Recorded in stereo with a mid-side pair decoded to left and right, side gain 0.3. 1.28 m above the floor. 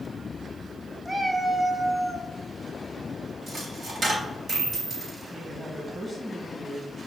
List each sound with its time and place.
1.1 s a cat meowing: 20° right, 1.3 m; by 2.3 s 15° left, 1.0 m
3.5 s a dropped coin: 55° right, 2.5 m
5.3 s a woman speaking: 5° right, 2.5 m